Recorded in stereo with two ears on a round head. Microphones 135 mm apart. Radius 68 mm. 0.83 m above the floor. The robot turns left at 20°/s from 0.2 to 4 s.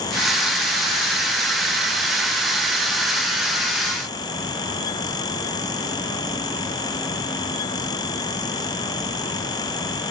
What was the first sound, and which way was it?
Only background noise.